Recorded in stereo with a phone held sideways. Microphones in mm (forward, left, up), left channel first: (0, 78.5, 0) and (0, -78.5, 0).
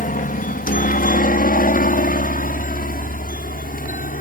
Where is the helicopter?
60° left (ahead or behind).